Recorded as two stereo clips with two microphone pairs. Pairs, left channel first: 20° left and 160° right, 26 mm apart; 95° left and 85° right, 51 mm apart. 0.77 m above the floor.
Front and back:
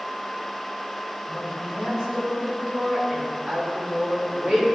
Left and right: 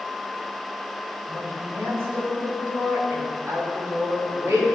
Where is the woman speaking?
115° right, 3 m.